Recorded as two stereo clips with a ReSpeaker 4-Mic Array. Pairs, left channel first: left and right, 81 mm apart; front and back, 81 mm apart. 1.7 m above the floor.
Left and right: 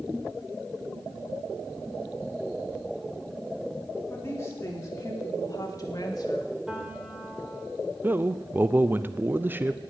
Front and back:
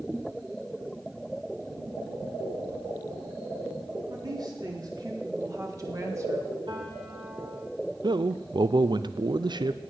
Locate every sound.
4.1 s a woman speaking: 150° left, 3.5 m; by 6.6 s 125° left, 2.5 m
6.7 s a piano: 170° right, 3.5 m
8.0 s a man speaking: 155° right, 0.6 m